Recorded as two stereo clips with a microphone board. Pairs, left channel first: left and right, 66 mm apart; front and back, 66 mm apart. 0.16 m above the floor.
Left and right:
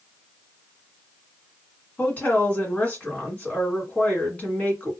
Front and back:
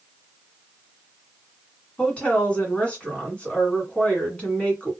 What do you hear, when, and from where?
2.0 s a woman speaking: 50° left, 1.7 m